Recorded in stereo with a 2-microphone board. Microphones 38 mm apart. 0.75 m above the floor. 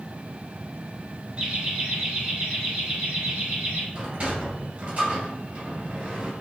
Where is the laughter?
30° right (ahead or behind), 1.8 m; by 3.8 s 45° right (ahead or behind), 3 m.